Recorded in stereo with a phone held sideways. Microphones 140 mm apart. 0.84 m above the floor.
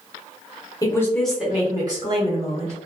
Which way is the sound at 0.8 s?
25° left (ahead or behind).